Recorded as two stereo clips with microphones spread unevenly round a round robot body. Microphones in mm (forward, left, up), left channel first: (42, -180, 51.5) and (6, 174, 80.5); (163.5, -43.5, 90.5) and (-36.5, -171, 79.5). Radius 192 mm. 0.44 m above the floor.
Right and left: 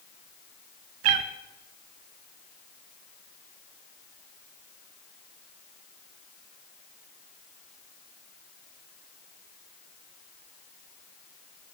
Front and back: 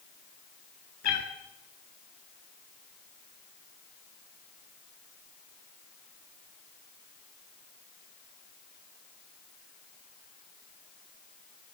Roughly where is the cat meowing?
Left.